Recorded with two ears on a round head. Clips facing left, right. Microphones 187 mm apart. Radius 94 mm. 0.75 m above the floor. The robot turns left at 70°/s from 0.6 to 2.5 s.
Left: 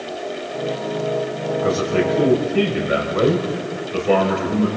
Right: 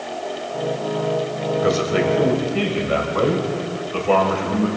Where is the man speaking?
140° right, 4 m; by 4.7 s 160° left, 4 m.